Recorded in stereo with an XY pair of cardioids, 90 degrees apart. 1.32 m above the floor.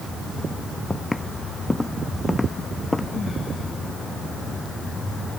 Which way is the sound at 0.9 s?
10° left.